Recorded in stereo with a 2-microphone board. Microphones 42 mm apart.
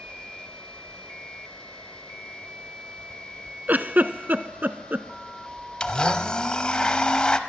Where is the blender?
20° left (ahead or behind), 0.8 m.